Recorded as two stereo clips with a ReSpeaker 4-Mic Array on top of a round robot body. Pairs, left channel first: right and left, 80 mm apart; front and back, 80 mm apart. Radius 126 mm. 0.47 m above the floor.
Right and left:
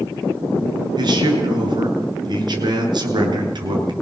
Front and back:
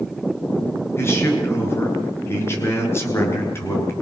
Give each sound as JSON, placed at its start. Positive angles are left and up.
{"t": 1.0, "sound": "a man speaking", "azimuth_deg": 60, "distance_m": 8.0}